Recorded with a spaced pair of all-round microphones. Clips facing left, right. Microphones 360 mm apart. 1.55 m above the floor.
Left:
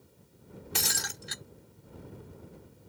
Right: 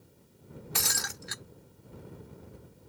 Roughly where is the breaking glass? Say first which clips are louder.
Left 1 dB; left.